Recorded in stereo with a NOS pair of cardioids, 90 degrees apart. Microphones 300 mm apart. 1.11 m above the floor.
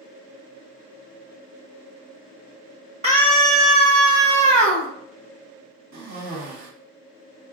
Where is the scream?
25° right, 1.1 m; by 4.9 s 75° right, 1.3 m.